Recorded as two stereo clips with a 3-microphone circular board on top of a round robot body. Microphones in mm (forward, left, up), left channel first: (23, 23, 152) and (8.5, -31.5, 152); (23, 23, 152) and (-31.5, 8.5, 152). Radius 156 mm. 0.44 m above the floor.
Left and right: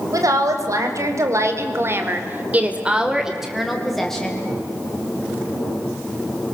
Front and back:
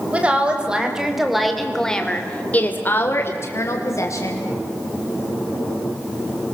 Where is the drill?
No drill in this recording.